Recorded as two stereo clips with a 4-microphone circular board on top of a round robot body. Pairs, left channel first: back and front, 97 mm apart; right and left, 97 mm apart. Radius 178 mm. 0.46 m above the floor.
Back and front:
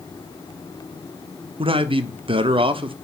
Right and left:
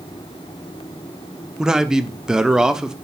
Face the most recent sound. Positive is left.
turn(degrees=5)